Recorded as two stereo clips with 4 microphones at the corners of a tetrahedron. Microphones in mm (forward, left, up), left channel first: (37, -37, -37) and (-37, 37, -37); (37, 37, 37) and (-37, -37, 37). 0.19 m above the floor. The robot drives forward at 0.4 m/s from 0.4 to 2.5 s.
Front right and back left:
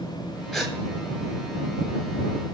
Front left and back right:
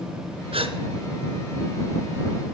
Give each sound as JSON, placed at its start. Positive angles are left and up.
{"t": 0.5, "sound": "a gasp", "azimuth_deg": -130, "distance_m": 2.0}